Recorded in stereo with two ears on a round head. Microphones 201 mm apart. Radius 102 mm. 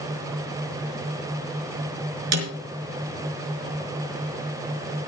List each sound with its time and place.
2.3 s a snare drum: 90° right, 5 m